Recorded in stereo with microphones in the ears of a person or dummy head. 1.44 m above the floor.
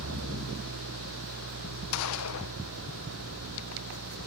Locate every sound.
0.0 s an engine running: 75° right (ahead or behind)
1.9 s a gunshot: 75° left (ahead or behind)